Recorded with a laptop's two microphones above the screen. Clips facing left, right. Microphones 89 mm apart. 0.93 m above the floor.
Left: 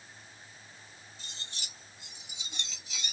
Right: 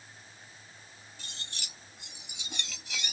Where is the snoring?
I don't hear snoring.